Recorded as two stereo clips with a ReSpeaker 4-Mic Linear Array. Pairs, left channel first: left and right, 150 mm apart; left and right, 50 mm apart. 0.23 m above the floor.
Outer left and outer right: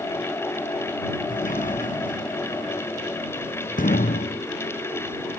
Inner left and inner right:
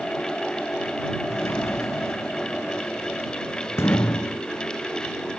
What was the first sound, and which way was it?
A sliding door, 60° left (ahead or behind).